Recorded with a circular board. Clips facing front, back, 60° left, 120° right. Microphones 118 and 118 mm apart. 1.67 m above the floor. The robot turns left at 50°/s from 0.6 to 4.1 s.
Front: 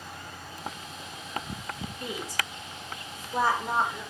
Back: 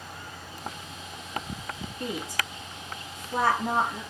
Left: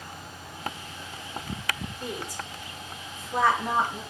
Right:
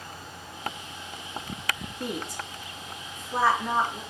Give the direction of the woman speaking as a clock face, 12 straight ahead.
4 o'clock.